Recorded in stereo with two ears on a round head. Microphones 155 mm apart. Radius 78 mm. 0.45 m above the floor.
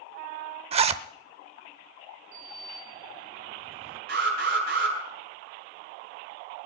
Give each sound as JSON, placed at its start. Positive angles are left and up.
{"t": 0.7, "sound": "a zipper", "side_deg": -35, "distance_m": 0.7}
{"t": 2.3, "sound": "a sliding door", "side_deg": -40, "distance_m": 2.5}
{"t": 4.1, "sound": "an alarm", "side_deg": -65, "distance_m": 8.0}